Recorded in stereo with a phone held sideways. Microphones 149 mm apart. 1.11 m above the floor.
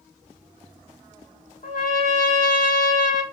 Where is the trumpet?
70° left (ahead or behind), 1.2 m.